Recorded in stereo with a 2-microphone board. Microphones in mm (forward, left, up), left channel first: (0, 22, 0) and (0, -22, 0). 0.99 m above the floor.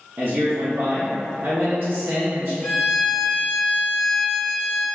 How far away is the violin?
About 0.9 m.